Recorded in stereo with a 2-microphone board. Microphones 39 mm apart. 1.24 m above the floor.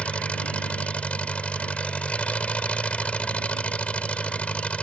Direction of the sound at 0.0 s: 35° left (ahead or behind).